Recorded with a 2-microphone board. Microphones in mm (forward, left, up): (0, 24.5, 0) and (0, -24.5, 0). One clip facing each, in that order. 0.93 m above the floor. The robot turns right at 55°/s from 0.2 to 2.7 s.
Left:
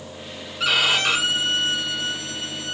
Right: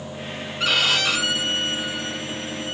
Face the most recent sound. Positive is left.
turn(degrees=115)